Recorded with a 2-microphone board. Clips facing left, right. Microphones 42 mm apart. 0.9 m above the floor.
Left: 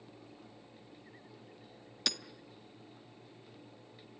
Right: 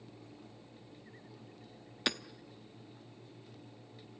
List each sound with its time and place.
2.1 s hammering: 25° right (ahead or behind), 0.7 m